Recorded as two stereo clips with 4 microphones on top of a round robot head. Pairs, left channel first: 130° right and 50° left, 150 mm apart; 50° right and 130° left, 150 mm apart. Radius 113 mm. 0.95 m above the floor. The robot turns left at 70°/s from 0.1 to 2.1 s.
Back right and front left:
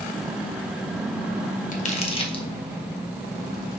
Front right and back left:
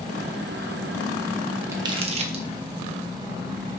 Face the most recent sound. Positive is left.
turn(degrees=175)